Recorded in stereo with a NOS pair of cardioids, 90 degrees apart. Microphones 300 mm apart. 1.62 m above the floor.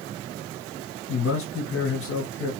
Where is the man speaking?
50° left, 3 m.